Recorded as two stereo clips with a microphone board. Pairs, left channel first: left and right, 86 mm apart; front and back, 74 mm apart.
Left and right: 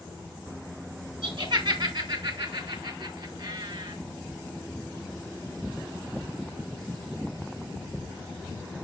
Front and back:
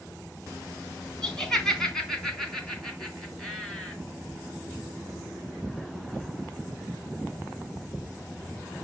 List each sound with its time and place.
1.2 s laughter: 80° right, 3 m; by 4.0 s 85° right, 4.5 m